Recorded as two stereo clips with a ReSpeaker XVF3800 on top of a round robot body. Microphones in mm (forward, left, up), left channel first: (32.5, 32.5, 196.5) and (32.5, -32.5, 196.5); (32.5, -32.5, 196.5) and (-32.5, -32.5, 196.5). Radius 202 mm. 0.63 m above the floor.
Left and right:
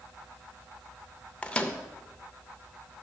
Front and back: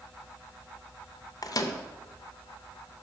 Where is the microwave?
15° left, 0.7 m.